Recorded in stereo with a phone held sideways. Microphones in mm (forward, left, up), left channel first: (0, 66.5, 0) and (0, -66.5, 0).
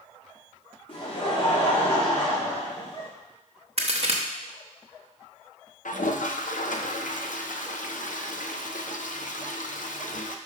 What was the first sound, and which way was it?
Laughter, 40° left (ahead or behind).